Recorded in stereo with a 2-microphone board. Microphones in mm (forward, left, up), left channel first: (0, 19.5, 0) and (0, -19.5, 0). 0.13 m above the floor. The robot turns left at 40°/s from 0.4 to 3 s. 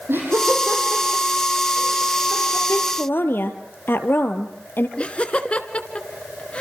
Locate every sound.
0.1 s laughter: 65° right (ahead or behind), 5.5 m; by 2.6 s 20° right (ahead or behind), 5.5 m
2.7 s a woman speaking: 65° left (ahead or behind), 2.5 m
5.0 s laughter: 30° left (ahead or behind), 1.7 m